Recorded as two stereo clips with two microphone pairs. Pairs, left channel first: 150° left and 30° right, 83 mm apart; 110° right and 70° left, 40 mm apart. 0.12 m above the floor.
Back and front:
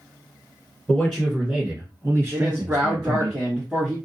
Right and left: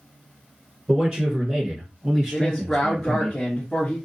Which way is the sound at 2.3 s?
85° right.